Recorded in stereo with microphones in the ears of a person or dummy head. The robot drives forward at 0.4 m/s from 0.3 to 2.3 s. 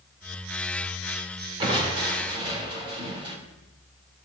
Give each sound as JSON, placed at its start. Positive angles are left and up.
{"t": 1.6, "sound": "crushing", "side_deg": -30, "distance_m": 3.5}